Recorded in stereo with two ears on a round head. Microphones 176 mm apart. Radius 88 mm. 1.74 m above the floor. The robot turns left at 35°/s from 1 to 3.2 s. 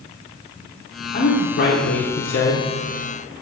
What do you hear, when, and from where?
1.1 s a woman speaking: 120° left, 1.0 m; by 2.7 s 65° left, 1.0 m